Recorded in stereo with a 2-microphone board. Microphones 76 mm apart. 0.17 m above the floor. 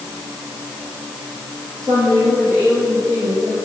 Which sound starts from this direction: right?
A woman speaking, at 1.8 s.